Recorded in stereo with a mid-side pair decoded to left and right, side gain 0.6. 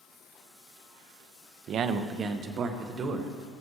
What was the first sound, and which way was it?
A man speaking, 50° right.